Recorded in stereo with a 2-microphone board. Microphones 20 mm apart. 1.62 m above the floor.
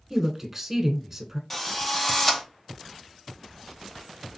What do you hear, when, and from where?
0.1 s a woman speaking: 15° right (ahead or behind), 1.2 m
1.5 s a drill: 20° left (ahead or behind), 0.8 m